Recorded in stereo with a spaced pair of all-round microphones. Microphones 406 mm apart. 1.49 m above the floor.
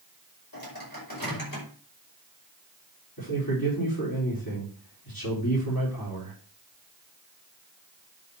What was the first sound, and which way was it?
A microwave, 60° left (ahead or behind).